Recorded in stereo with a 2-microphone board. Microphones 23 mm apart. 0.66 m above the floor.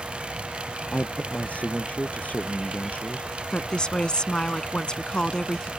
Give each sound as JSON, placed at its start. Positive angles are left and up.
{"t": 0.9, "sound": "a man speaking", "side_deg": 80}
{"t": 3.5, "sound": "a woman speaking", "side_deg": 35}